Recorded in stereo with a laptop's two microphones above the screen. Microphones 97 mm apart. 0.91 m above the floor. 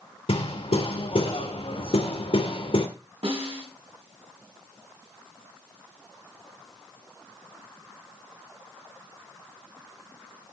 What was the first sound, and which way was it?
Hammering, 75° left (ahead or behind).